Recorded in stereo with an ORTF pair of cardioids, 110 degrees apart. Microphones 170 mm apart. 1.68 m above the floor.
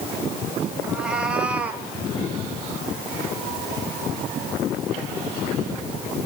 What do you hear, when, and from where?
0.8 s a cat meowing: 5° right, 4.5 m; by 1.9 s 10° right, 3.5 m